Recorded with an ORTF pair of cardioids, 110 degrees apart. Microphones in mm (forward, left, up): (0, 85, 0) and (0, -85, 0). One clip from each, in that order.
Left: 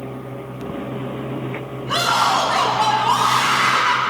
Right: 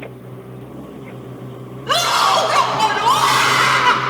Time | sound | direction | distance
1.9 | a scream | 65° right | 7 m